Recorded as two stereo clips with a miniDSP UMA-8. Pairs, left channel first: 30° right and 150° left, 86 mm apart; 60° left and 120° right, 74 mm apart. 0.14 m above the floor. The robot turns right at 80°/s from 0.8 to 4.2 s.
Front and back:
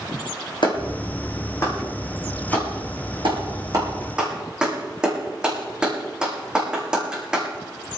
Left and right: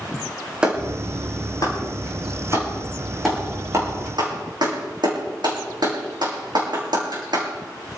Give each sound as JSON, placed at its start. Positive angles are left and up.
{"t": 0.6, "sound": "a clap", "azimuth_deg": -45, "distance_m": 8.0}